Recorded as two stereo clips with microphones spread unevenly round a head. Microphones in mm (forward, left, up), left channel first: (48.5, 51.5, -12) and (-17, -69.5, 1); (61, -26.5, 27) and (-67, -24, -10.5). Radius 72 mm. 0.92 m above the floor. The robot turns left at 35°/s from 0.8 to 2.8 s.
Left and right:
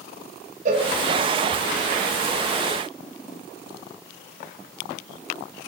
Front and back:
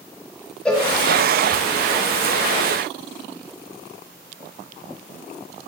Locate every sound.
0.7 s a cowbell: 95° right, 0.9 m